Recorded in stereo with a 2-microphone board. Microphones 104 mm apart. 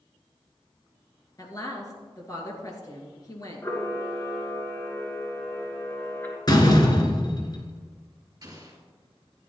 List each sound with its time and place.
1.4 s a woman speaking: 35° left (ahead or behind), 2.5 m
3.6 s a camera shutter: 20° left (ahead or behind), 1.9 m
6.5 s a door slam: 40° left (ahead or behind), 1.3 m
8.4 s an explosion: 35° right (ahead or behind), 3 m